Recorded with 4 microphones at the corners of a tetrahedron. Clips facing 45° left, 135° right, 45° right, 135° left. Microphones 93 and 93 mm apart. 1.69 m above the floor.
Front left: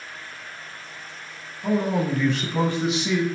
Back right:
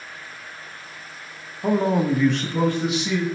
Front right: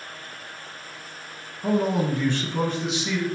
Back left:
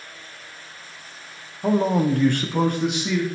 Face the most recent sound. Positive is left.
turn(degrees=95)